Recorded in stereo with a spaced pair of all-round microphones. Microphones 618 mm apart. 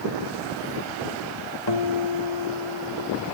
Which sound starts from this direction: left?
A guitar, at 1.7 s.